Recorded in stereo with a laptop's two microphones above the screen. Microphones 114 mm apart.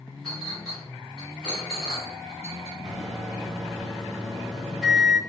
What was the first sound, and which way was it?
A clink, centre (ahead or behind).